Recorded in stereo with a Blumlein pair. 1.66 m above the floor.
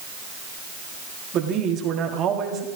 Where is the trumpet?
No trumpet in this recording.